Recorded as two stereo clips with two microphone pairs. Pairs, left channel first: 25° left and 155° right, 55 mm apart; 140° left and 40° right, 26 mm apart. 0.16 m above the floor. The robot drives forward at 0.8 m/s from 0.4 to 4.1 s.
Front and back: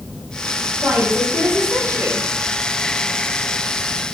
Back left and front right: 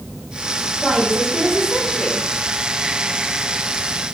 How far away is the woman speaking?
About 5.5 m.